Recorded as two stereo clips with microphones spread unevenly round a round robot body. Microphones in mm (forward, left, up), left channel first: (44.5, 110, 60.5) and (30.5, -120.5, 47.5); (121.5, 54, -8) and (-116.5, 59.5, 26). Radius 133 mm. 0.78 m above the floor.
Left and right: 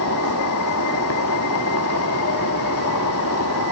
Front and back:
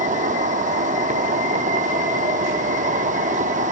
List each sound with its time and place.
0.0 s an insect: 120° left, 1.0 m